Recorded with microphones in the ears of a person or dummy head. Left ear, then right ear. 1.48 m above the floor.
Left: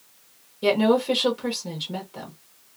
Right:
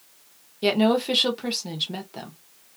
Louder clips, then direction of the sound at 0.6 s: Left 1 dB; 15° right (ahead or behind).